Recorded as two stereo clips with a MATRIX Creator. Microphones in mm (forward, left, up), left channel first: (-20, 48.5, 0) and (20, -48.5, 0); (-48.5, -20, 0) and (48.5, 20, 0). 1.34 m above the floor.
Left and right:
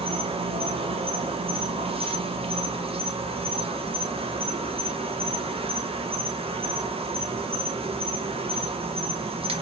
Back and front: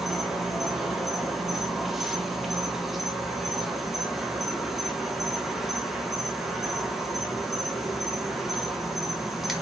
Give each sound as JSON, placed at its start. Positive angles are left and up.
{"t": 0.0, "sound": "an insect", "azimuth_deg": -65, "distance_m": 0.7}